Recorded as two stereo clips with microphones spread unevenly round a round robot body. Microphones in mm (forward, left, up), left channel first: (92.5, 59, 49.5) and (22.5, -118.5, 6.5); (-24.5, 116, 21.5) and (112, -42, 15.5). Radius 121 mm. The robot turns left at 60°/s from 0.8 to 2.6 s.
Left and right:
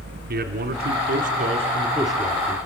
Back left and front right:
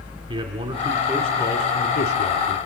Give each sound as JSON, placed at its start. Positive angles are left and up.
{"t": 0.3, "sound": "a man speaking", "azimuth_deg": -115, "distance_m": 1.4}